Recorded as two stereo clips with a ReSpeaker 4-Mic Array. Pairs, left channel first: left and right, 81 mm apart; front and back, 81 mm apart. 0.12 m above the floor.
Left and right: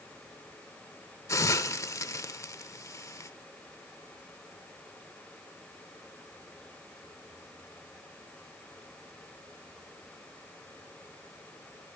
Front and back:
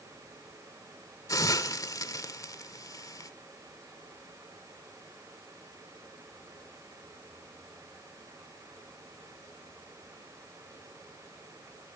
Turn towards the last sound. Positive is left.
turn(degrees=40)